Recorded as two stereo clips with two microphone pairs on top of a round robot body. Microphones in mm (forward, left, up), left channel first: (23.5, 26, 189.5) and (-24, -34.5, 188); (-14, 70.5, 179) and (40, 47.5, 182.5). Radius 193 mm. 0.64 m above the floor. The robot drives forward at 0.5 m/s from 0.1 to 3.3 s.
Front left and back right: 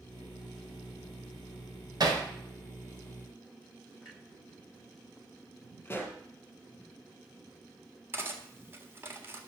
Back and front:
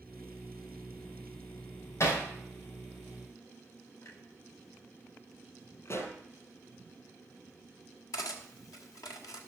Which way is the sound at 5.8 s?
120° left.